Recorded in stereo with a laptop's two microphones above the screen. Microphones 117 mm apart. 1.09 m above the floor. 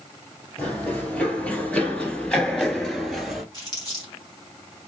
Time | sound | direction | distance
0.6 | running footsteps | 10° left (ahead or behind) | 1.5 m
3.5 | crumpling | 35° left (ahead or behind) | 1.7 m